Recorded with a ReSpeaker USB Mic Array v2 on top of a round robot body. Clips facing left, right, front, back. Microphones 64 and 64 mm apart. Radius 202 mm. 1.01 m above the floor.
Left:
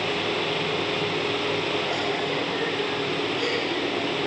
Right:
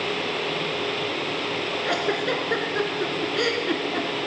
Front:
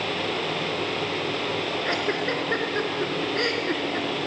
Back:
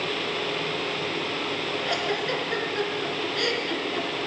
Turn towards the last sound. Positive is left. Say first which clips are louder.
# right 2 dB, front 1 dB
turn(degrees=-60)